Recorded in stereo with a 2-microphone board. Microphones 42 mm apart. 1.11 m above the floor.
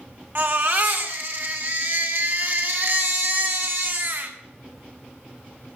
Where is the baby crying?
55° right (ahead or behind), 2.5 m.